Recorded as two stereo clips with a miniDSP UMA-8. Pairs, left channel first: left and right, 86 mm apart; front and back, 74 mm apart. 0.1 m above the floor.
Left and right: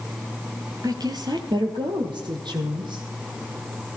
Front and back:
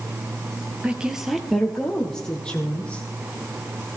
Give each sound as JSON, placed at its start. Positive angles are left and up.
{"t": 0.8, "sound": "a woman speaking", "azimuth_deg": -110, "distance_m": 1.7}